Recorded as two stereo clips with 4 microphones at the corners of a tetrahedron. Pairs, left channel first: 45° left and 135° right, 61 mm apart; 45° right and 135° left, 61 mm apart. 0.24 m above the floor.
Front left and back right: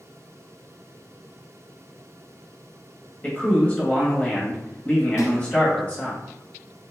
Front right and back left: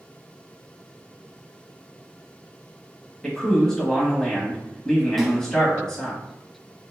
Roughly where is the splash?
Ahead left.